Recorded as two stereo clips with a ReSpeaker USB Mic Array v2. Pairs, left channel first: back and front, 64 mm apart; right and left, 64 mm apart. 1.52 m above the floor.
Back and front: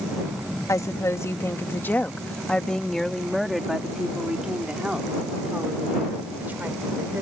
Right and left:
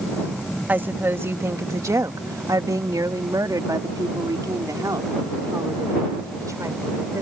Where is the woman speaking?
150° left; by 7.2 s 60° left.